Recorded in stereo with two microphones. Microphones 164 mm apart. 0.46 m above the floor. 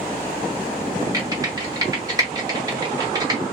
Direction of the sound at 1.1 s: 20° right (ahead or behind).